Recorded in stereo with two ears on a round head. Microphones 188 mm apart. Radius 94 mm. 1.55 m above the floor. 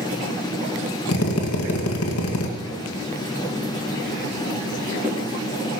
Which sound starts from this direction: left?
A drill, at 1.1 s.